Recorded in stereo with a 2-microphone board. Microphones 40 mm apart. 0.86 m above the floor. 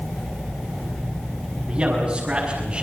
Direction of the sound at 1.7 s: 25° right (ahead or behind).